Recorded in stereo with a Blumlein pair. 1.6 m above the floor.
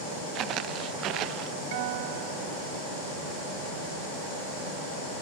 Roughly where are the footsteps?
Ahead right.